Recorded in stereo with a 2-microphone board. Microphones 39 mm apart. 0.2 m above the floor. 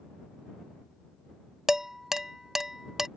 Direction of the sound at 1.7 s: 10° right (ahead or behind).